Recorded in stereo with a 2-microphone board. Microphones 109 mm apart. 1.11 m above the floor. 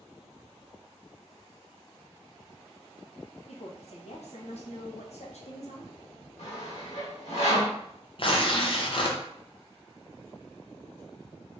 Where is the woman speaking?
70° left (ahead or behind), 0.8 m.